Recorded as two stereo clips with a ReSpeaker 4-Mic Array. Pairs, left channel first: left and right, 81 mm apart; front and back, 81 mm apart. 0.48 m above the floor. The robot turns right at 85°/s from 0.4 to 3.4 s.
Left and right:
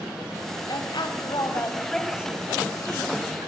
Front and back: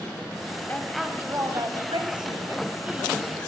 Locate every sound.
0.7 s a woman speaking: 65° left, 3.5 m; by 3.5 s 65° right, 3.5 m